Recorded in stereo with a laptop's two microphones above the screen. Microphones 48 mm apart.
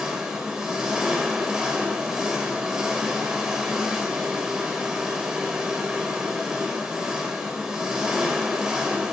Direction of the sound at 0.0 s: 15° right (ahead or behind).